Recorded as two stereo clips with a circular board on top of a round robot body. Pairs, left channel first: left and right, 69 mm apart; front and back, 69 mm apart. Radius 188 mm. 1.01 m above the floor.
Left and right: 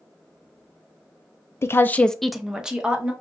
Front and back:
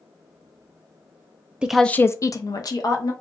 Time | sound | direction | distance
1.6 | a woman speaking | 110° left | 0.5 m